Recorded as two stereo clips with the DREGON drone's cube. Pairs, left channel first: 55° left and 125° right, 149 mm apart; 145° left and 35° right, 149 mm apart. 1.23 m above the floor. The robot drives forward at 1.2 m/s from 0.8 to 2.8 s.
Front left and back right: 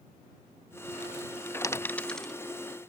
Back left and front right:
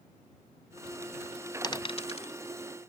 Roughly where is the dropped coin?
Left.